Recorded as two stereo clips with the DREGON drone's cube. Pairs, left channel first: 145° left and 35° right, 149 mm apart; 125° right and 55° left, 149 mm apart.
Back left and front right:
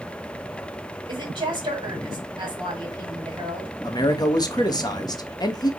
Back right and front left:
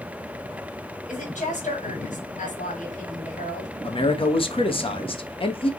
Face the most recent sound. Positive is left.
turn(degrees=-160)